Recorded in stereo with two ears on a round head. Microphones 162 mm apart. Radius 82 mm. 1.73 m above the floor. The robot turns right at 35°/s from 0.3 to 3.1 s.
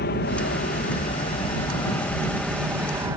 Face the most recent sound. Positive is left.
turn(degrees=-160)